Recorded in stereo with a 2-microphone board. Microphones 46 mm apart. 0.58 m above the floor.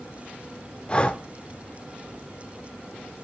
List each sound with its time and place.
0.9 s breathing: 25° left (ahead or behind), 0.6 m